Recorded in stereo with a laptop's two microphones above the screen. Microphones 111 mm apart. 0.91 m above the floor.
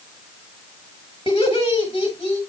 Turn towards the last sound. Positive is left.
turn(degrees=40)  # may be behind; listen again after turning